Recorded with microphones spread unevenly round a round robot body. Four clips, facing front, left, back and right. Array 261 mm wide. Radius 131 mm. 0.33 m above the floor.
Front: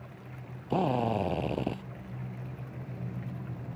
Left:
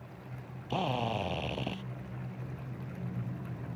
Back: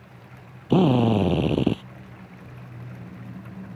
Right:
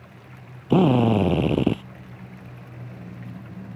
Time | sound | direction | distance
0.7 | a drill | 130° right | ?